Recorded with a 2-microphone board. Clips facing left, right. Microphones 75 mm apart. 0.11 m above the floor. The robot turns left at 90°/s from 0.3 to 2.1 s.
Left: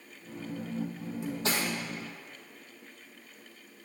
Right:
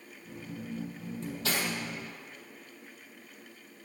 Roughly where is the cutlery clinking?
Centre.